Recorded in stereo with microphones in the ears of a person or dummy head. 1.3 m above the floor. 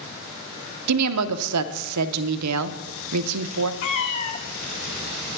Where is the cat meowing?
20° left (ahead or behind), 0.6 m.